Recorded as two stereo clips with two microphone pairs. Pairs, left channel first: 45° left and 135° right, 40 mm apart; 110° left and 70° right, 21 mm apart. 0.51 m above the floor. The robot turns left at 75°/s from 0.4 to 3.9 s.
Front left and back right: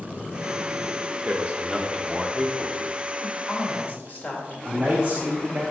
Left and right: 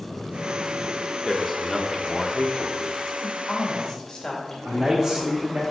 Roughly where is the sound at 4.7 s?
Right.